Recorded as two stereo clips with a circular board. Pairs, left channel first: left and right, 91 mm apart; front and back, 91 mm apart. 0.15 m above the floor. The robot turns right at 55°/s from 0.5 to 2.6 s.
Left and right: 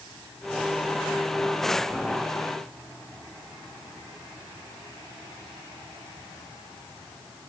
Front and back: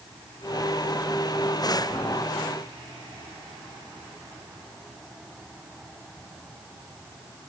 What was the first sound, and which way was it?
Only background noise.